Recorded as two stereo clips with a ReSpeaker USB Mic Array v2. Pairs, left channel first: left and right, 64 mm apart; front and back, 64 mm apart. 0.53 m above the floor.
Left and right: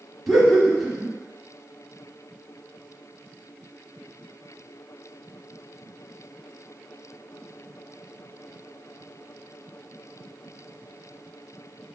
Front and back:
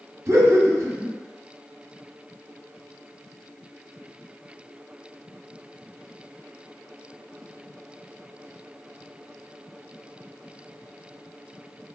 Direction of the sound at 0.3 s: Straight behind.